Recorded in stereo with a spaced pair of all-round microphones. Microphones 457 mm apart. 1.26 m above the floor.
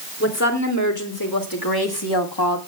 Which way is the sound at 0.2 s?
30° left (ahead or behind).